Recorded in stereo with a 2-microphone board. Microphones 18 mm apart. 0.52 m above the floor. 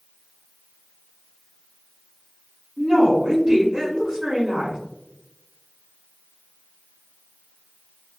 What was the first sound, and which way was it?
A woman speaking, 35° right (ahead or behind).